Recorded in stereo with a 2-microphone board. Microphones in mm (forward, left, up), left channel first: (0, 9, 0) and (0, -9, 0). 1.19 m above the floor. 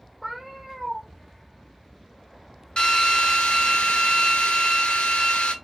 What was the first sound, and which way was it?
A cat meowing, 25° right (ahead or behind).